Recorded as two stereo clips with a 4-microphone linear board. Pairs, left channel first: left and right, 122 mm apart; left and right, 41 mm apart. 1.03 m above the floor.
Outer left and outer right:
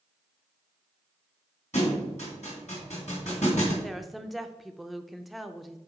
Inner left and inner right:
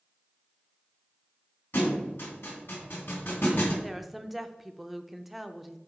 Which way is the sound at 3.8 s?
Centre (ahead or behind).